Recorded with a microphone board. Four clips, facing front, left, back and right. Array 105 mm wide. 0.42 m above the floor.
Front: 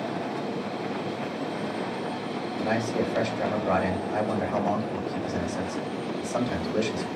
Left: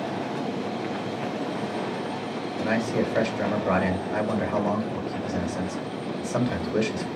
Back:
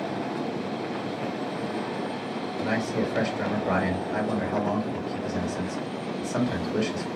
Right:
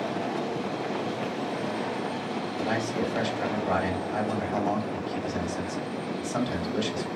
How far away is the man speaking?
About 1.7 m.